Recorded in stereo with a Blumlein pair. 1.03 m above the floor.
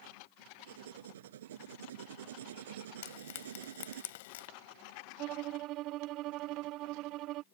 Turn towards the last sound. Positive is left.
turn(degrees=-40)